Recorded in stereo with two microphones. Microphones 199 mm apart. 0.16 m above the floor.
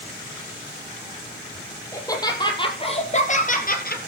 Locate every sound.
1.9 s laughter: 15° left (ahead or behind), 5 m; by 4.0 s 50° left (ahead or behind), 4 m